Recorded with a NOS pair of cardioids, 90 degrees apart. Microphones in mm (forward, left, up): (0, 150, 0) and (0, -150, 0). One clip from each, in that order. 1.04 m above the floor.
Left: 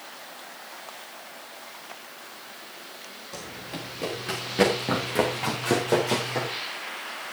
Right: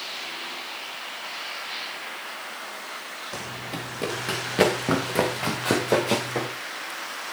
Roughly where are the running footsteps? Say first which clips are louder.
Right 2 dB; ahead right.